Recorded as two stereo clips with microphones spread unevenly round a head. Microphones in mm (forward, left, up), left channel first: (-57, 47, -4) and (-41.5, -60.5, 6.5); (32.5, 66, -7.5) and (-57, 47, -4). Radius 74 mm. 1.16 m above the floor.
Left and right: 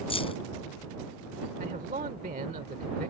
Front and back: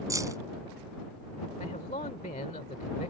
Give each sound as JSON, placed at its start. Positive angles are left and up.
{"t": 0.1, "sound": "keys jangling", "azimuth_deg": 140}
{"t": 1.6, "sound": "a man speaking", "azimuth_deg": -35}